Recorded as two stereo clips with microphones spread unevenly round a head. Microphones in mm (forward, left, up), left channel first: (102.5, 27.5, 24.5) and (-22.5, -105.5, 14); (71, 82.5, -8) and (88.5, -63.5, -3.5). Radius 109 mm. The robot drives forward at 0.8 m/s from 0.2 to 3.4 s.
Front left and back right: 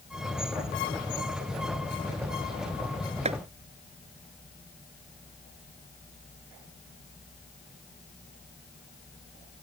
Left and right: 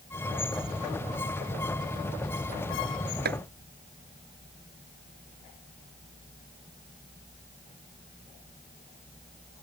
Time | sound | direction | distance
3.2 | chopping | 80° right | ?